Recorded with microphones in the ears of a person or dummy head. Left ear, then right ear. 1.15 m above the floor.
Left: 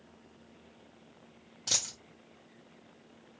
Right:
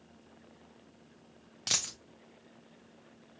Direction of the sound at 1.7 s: 25° right (ahead or behind).